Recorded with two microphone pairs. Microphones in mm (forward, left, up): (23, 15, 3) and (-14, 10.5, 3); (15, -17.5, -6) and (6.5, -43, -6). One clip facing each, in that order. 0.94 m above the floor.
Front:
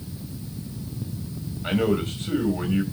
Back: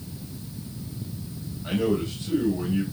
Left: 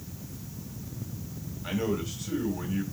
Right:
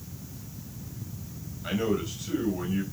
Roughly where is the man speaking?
Ahead right.